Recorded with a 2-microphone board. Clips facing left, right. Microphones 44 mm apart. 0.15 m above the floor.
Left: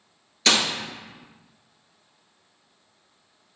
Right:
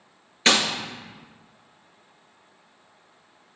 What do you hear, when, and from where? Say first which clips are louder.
0.5 s a gunshot: right 1 dB; 35° right (ahead or behind), 1.6 m